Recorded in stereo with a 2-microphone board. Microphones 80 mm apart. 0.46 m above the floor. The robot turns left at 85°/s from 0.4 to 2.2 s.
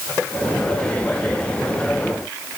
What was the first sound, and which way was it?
Only background noise.